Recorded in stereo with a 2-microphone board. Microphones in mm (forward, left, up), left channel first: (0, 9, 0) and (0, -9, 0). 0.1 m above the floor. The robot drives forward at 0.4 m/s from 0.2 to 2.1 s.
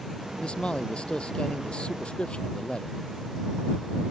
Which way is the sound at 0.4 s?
65° left (ahead or behind).